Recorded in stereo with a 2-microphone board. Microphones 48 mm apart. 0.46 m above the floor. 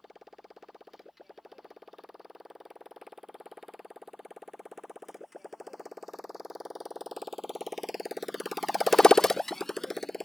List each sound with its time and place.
0.0 s a motorcycle: 5° right (ahead or behind); by 10.3 s 5° left (ahead or behind)